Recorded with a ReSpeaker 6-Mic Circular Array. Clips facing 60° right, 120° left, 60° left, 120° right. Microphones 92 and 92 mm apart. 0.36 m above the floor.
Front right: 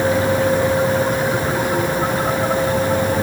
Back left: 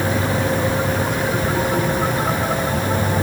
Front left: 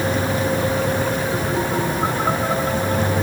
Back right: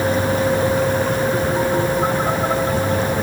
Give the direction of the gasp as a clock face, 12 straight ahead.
I don't hear a gasp.